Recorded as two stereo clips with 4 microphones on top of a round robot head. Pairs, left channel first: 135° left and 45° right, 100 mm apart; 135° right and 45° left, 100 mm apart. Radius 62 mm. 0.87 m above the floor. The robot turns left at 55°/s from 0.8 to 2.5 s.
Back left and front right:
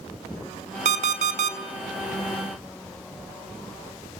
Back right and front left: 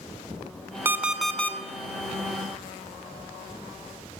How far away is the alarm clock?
About 1.7 m.